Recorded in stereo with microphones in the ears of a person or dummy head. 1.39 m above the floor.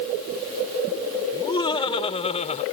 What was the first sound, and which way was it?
Laughter, 25° left (ahead or behind).